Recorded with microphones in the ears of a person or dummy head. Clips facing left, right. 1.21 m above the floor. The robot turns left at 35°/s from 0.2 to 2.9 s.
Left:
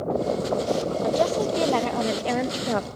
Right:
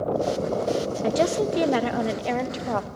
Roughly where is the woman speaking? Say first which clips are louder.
Right 1 dB; behind right.